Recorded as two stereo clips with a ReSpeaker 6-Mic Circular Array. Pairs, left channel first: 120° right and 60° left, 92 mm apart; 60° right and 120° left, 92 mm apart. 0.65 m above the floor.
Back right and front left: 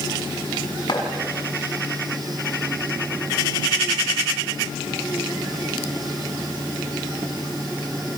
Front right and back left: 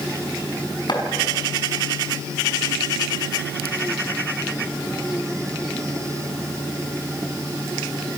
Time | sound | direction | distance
0.9 | chopping | 90° right | 5.5 m